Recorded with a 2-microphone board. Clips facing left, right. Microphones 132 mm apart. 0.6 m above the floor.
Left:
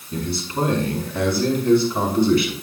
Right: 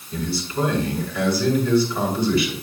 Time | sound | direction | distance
0.1 | a man speaking | 50° left (ahead or behind) | 6.5 m